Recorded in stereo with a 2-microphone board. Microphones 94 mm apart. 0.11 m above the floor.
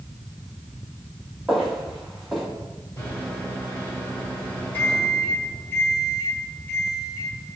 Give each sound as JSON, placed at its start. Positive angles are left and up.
{"t": 1.5, "sound": "footsteps", "side_deg": 0, "distance_m": 1.2}
{"t": 3.0, "sound": "a microwave", "side_deg": 25, "distance_m": 1.9}